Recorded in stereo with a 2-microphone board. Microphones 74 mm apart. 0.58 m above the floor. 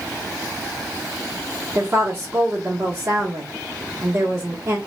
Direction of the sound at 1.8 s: 35° right (ahead or behind).